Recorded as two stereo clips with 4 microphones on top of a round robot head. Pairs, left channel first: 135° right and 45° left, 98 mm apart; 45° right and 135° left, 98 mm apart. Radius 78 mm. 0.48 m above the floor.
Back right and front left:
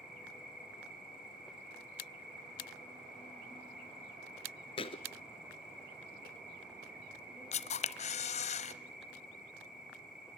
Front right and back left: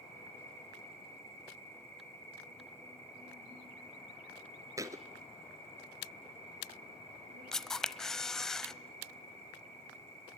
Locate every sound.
0.0 s an insect: 130° left, 9.5 m
4.8 s a thud: 170° right, 1.1 m
7.5 s a camera shutter: 130° right, 0.9 m